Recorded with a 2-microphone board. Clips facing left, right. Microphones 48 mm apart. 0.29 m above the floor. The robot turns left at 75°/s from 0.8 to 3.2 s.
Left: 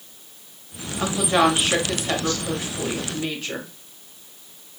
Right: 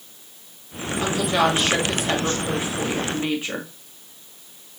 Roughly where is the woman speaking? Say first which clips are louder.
Left 1 dB; left.